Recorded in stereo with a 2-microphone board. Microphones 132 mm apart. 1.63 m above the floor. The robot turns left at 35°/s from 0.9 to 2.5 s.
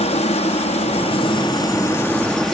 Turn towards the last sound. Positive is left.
turn(degrees=5)